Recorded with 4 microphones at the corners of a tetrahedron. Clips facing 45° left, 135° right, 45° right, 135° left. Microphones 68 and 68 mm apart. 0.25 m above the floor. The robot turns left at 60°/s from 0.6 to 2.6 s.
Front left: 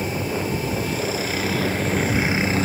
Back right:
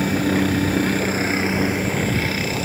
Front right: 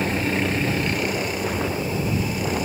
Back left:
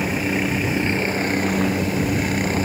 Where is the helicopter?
145° right; by 2.6 s 95° left.